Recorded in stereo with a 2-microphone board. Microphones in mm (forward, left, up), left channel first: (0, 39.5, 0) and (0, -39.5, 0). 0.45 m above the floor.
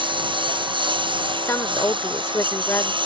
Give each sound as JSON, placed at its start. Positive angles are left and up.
{"t": 0.0, "sound": "a lawn mower", "side_deg": -80}
{"t": 1.4, "sound": "a woman speaking", "side_deg": 35}